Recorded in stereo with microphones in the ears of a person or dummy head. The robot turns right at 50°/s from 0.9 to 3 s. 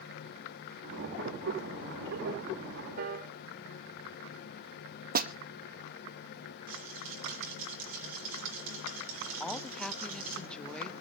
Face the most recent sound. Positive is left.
turn(degrees=5)  # may be behind; listen again after turning